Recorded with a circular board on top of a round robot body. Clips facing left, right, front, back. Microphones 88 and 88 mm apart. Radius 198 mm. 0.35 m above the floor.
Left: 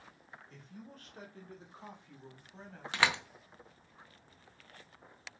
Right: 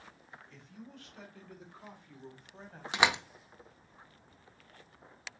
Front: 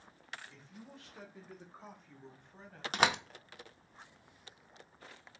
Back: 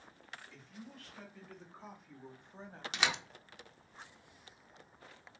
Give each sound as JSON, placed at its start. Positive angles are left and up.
{"t": 0.5, "sound": "a man speaking", "azimuth_deg": 55, "distance_m": 2.5}
{"t": 2.9, "sound": "a door slam", "azimuth_deg": -25, "distance_m": 0.7}